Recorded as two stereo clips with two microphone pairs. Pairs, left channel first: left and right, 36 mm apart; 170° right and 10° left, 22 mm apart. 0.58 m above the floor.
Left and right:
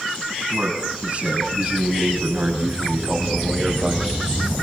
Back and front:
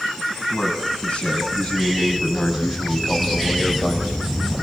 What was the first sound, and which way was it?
A man speaking, 140° right.